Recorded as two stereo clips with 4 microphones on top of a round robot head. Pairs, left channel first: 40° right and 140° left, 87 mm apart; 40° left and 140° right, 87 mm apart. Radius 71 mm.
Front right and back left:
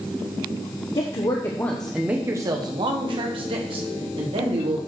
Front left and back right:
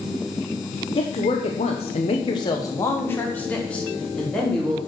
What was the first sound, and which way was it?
A woman speaking, straight ahead.